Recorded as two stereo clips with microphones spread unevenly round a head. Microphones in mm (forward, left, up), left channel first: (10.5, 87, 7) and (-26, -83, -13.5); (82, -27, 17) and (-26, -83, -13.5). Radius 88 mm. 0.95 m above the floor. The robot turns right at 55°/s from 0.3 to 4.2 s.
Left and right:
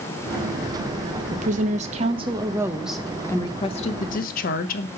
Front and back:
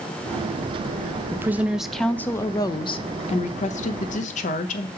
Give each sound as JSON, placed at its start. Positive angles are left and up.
{"t": 1.3, "sound": "a woman speaking", "azimuth_deg": -110, "distance_m": 0.7}